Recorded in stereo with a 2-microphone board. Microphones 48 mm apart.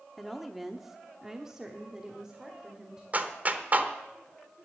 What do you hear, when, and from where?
0.2 s a woman speaking: 5° right (ahead or behind), 0.9 m; by 3.0 s 10° right (ahead or behind), 1.8 m
3.1 s a clap: 35° right (ahead or behind), 1.0 m